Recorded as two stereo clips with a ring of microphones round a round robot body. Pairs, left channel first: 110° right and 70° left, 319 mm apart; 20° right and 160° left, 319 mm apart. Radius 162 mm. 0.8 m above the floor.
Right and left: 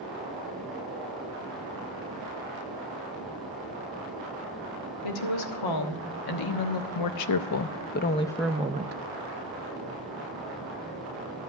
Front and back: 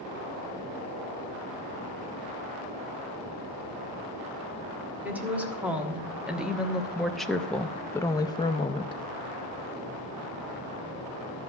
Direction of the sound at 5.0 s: 120° right.